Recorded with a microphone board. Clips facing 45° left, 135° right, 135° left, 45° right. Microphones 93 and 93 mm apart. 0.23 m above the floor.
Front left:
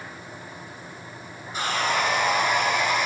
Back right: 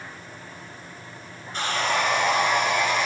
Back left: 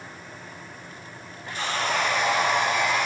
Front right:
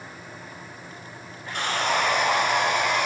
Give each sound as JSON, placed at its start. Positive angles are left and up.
{"t": 1.5, "sound": "sawing", "azimuth_deg": -35, "distance_m": 1.9}